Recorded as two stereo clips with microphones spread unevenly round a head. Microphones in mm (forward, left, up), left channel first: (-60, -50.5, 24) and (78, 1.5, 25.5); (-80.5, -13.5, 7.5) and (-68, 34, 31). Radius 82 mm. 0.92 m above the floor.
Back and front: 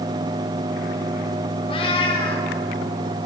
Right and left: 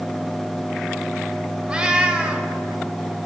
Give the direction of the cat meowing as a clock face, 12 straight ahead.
7 o'clock.